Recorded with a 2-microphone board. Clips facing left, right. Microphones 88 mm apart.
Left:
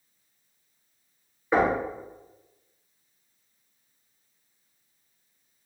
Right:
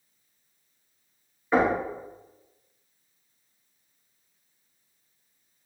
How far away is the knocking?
About 1.2 m.